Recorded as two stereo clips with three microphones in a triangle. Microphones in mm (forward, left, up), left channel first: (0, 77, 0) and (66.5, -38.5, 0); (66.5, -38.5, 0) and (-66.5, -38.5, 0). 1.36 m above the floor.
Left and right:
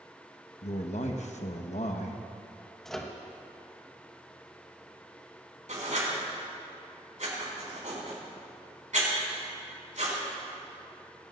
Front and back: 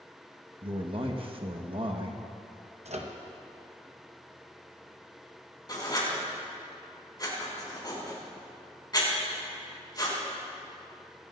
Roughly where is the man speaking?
Behind left.